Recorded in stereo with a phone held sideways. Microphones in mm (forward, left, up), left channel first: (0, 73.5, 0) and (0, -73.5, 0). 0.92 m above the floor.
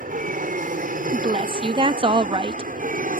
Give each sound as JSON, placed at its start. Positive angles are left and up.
{"t": 0.0, "sound": "an aircraft", "side_deg": -60}
{"t": 1.1, "sound": "a woman speaking", "side_deg": -35}